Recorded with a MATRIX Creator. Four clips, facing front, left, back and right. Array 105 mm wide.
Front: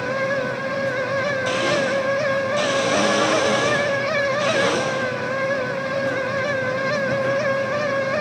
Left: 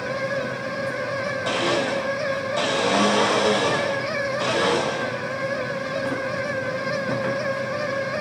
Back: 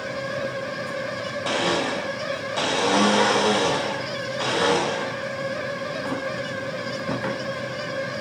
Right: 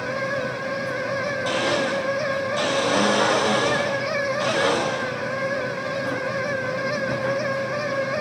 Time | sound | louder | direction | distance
1.4 | a blender | even, back 1 dB | 160° left | 4.5 m